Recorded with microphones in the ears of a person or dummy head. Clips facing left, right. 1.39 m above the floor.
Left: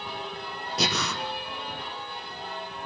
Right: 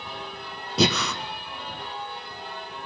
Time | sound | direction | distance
0.8 | breathing | 55° right (ahead or behind) | 1.4 m